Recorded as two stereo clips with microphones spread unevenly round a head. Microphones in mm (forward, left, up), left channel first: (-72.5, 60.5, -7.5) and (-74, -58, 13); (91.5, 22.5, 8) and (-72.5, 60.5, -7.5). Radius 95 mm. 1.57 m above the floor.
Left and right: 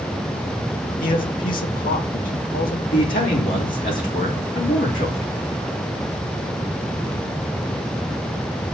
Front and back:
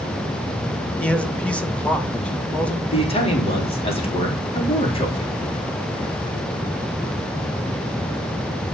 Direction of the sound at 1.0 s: 70° left.